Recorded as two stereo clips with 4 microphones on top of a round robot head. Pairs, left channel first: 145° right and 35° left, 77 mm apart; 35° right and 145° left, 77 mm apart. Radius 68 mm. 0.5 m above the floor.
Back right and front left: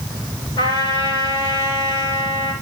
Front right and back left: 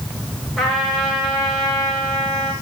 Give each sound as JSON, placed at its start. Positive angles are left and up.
{"t": 0.6, "sound": "a trumpet", "azimuth_deg": -125, "distance_m": 9.0}